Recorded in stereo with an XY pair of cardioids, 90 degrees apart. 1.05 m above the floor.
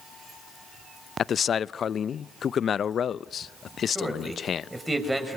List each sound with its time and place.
1.2 s a man speaking: 55° left, 0.5 m
4.0 s a man speaking: 15° right, 5.5 m